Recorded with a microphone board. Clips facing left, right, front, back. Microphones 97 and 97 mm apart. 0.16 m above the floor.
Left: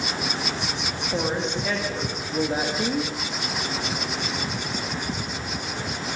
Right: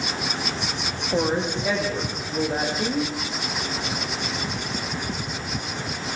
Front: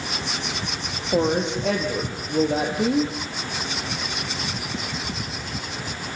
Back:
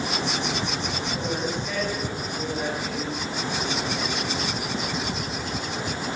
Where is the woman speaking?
15° right, 7 m; by 3.1 s 10° left, 6.5 m.